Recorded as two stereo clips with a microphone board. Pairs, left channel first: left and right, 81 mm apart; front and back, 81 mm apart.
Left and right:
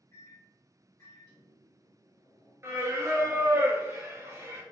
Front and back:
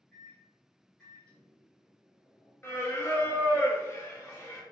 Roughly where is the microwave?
Ahead left.